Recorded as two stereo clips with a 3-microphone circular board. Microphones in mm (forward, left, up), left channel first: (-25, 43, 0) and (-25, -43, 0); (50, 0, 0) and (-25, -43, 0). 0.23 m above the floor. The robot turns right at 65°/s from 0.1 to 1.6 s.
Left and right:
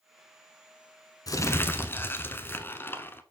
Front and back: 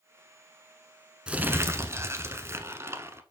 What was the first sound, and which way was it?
Crumpling, 130° left.